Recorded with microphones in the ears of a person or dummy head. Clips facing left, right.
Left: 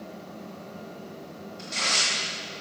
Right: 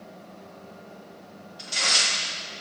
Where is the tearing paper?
5° right (ahead or behind), 1.7 m.